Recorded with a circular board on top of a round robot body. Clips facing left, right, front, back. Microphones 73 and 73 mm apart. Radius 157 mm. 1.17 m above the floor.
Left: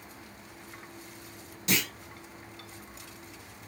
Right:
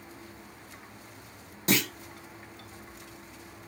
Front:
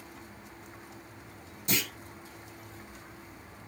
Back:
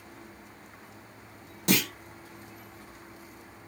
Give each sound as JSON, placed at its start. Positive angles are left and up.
{"t": 1.7, "sound": "a clunk", "azimuth_deg": -145, "distance_m": 0.9}